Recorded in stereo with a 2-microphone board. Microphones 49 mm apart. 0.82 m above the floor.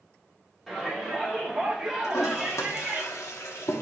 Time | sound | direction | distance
0.7 | a shout | 5° left (ahead or behind) | 2.5 m
2.0 | a toilet flushing | 75° left (ahead or behind) | 1.1 m